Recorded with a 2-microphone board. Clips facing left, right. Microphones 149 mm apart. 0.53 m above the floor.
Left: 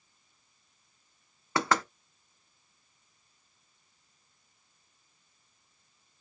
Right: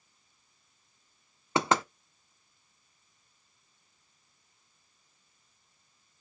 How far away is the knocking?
About 0.9 m.